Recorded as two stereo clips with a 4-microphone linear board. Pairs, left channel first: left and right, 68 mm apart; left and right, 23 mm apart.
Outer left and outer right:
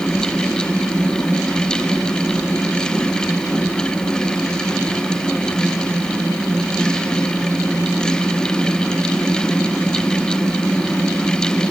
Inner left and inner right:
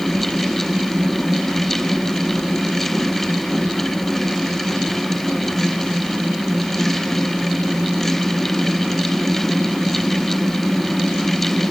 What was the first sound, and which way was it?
Only background noise.